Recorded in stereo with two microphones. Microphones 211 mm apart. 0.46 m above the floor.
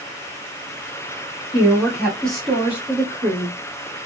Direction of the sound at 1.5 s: 20° left (ahead or behind).